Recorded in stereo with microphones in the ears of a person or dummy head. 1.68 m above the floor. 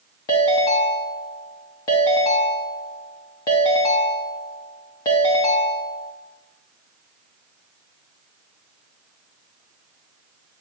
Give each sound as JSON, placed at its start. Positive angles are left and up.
{"t": 0.3, "sound": "a ringtone", "side_deg": 15, "distance_m": 1.0}